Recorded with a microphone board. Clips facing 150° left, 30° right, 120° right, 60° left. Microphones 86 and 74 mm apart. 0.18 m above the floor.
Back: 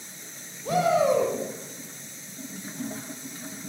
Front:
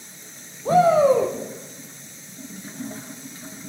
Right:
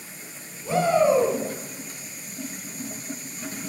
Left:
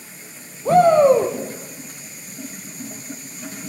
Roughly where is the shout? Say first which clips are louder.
Front 6 dB, left 8 dB; ahead left.